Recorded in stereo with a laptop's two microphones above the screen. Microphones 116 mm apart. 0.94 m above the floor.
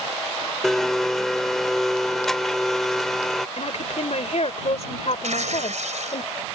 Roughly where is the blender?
Centre.